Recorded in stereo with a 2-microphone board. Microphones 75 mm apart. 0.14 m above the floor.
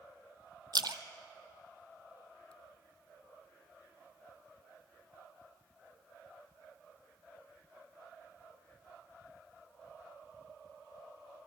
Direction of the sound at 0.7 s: 65° right (ahead or behind).